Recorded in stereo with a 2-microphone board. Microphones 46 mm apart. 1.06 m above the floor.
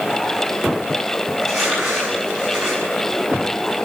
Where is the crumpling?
10° right (ahead or behind), 7 m.